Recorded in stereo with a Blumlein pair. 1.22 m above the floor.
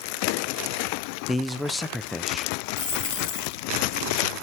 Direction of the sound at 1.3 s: 10° left.